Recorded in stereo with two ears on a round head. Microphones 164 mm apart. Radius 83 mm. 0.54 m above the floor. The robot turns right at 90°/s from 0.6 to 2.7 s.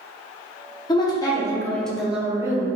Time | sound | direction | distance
0.9 | a woman speaking | 20° left (ahead or behind) | 0.7 m